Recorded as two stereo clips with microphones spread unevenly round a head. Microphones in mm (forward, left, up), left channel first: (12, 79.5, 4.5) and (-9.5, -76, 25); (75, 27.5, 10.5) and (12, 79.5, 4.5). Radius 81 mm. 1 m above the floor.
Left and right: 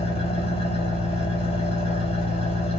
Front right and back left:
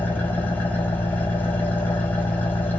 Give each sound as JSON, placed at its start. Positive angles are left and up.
{"t": 0.0, "sound": "an engine running", "azimuth_deg": 30, "distance_m": 4.0}